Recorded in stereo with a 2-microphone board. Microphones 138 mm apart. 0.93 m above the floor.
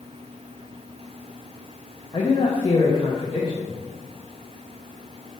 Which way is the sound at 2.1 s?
35° left (ahead or behind).